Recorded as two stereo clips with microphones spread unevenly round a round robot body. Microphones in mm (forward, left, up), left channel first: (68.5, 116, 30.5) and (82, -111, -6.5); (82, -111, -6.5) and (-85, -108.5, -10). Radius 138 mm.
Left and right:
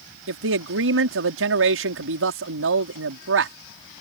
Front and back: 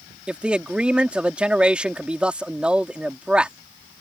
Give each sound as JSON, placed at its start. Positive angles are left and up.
{"t": 0.3, "sound": "a man speaking", "azimuth_deg": -100}